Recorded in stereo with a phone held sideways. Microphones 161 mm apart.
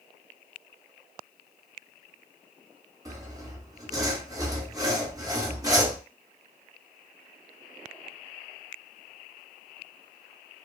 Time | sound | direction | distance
3.0 | sawing | 20° right (ahead or behind) | 0.7 m